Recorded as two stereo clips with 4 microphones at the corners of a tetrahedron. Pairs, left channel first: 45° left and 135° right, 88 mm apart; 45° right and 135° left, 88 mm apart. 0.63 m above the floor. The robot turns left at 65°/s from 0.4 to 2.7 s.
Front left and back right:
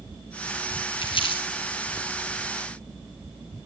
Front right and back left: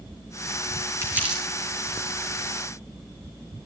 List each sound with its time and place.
1.0 s crumpling: 75° left, 8.5 m; by 1.4 s 45° left, 8.5 m